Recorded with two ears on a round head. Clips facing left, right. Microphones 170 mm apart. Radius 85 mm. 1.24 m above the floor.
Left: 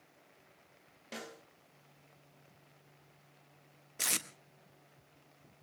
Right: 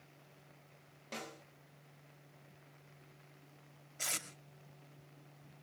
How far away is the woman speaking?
I don't hear a woman speaking.